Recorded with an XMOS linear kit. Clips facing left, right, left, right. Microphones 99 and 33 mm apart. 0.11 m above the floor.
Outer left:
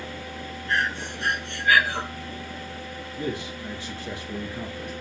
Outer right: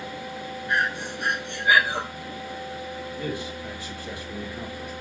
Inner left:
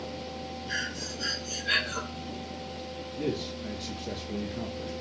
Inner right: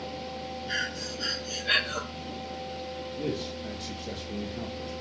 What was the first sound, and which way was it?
Breathing, 15° right (ahead or behind).